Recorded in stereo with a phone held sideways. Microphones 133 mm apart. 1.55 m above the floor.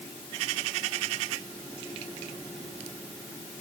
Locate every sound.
Only background noise.